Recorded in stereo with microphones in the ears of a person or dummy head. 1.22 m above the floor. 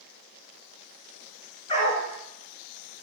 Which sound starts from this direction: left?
A dog barking, at 1.7 s.